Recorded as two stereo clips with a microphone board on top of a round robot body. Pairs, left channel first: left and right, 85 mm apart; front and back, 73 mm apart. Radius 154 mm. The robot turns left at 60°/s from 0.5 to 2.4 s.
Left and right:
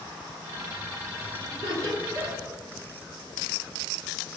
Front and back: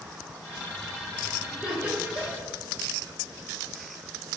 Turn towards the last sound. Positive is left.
turn(degrees=-145)